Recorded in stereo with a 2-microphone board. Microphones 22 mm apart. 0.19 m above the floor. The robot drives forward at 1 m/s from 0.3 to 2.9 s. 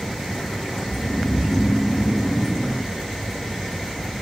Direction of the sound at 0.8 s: 50° left (ahead or behind).